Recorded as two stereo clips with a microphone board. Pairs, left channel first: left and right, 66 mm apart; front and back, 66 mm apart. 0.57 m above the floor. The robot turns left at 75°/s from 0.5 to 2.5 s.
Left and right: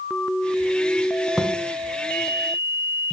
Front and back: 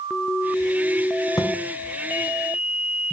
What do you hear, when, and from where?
1.4 s a thud: 5° right, 1.4 m; by 1.5 s 20° right, 1.4 m